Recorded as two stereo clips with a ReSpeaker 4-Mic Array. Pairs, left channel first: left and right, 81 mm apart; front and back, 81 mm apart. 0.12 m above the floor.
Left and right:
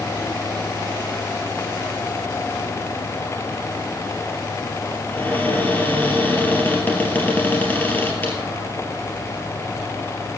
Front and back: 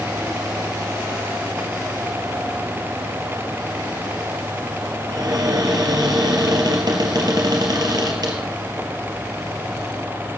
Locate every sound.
5.1 s a cupboard door: 155° left, 3 m